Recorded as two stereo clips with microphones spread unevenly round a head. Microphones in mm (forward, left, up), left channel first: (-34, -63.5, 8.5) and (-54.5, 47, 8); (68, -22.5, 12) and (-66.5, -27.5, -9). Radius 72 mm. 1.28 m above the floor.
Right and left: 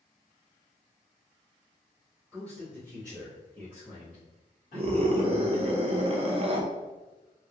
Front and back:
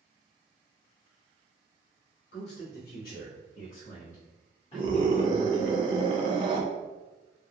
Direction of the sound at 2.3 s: 5° left.